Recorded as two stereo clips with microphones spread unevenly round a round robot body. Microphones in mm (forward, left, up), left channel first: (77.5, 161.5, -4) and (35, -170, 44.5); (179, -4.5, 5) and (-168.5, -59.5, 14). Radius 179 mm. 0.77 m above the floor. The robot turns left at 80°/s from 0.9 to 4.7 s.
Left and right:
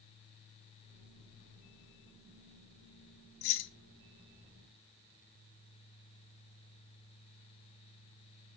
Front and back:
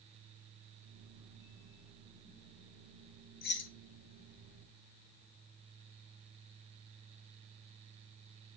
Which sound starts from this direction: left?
Keys jangling, at 3.4 s.